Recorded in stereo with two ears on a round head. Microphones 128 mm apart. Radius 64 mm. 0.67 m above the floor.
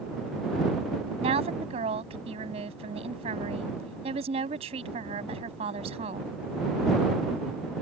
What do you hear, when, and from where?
1.2 s a woman speaking: 45° right (ahead or behind)